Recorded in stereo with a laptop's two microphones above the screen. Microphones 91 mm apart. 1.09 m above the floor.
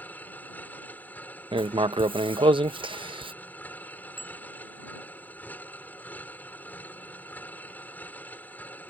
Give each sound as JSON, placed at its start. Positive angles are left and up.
{"t": 0.0, "sound": "a machine running", "side_deg": 20}
{"t": 1.5, "sound": "writing", "side_deg": -70}
{"t": 4.2, "sound": "a bicycle bell", "side_deg": -90}